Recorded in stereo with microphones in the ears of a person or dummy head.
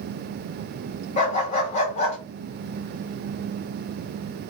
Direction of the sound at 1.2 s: 35° left (ahead or behind).